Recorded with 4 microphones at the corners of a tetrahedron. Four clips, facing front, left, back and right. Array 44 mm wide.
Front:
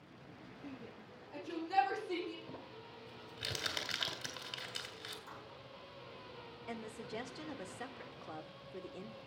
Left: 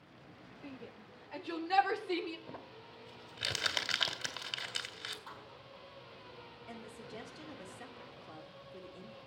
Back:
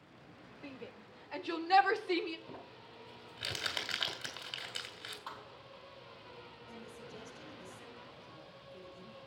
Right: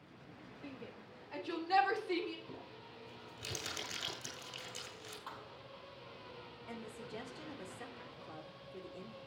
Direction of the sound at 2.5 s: 105° left.